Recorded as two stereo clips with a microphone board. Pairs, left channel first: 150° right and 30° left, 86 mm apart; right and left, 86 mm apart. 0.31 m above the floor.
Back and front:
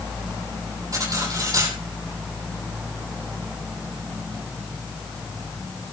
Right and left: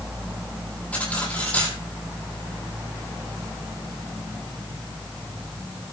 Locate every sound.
0.9 s cutlery clinking: 15° right, 6.5 m